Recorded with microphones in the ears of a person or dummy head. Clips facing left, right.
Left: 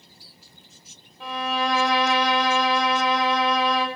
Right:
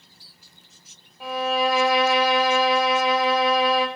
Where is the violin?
10° right (ahead or behind), 1.0 m.